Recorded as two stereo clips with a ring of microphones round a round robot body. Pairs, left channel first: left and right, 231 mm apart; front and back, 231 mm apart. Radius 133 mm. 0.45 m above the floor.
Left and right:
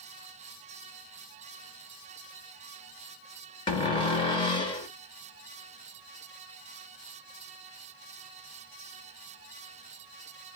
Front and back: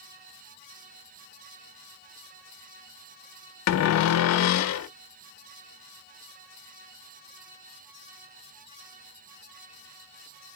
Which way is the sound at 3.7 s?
20° left.